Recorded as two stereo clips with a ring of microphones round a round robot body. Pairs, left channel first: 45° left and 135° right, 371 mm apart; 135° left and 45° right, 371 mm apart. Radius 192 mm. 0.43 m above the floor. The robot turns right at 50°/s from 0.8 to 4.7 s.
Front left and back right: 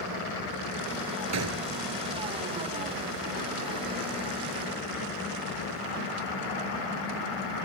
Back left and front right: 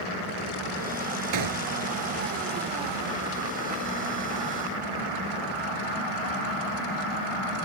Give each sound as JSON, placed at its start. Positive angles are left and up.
{"t": 1.3, "sound": "a gunshot", "azimuth_deg": -85}